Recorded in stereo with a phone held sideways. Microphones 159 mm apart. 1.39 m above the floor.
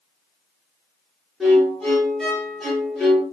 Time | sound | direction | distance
1.4 | a violin | centre (ahead or behind) | 0.9 m